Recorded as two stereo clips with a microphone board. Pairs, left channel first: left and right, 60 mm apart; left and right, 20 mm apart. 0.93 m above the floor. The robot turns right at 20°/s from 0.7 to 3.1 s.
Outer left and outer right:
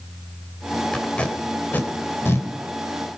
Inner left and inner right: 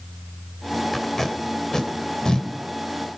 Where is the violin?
I don't hear a violin.